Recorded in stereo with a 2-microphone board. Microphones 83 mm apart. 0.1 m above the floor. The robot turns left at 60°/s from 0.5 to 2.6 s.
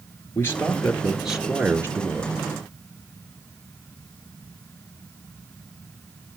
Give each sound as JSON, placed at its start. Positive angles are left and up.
{"t": 0.3, "sound": "a man speaking", "azimuth_deg": 40, "distance_m": 1.5}